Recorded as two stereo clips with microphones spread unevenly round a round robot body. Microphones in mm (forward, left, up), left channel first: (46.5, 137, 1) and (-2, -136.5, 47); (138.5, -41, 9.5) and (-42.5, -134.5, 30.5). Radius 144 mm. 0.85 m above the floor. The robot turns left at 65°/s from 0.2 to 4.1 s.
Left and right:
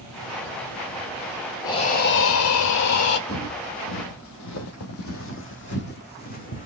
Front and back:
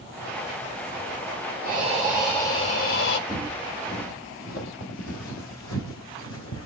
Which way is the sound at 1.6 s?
155° left.